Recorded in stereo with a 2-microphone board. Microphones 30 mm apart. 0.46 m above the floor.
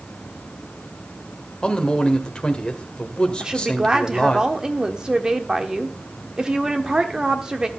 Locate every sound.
1.6 s a man speaking: 30° left (ahead or behind), 1.5 m
3.4 s a woman speaking: 25° right (ahead or behind), 1.1 m